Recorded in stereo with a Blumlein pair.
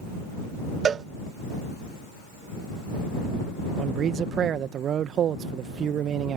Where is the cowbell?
25° right.